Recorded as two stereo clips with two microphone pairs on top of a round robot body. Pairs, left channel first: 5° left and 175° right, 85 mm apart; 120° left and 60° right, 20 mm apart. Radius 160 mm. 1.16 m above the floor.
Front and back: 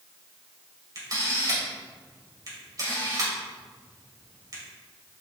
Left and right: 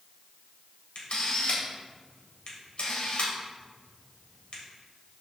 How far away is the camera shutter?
About 3.5 m.